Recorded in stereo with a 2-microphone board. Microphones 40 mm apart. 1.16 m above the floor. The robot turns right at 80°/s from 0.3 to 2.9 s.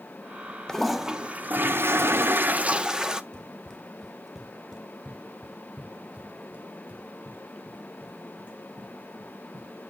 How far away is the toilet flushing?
About 0.6 m.